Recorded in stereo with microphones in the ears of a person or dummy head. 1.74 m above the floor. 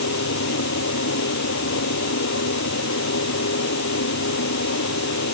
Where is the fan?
70° left (ahead or behind).